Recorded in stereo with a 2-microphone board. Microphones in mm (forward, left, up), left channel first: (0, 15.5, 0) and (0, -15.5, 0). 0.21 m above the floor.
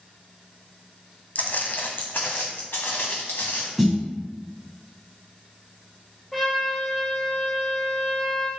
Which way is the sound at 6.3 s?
5° left (ahead or behind).